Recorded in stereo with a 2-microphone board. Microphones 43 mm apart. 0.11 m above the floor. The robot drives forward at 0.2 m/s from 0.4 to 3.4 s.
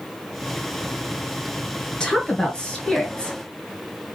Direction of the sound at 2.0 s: 20° left (ahead or behind).